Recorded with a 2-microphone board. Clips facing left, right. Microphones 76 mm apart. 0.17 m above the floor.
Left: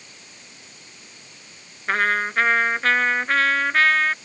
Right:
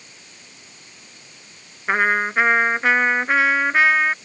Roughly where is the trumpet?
Centre.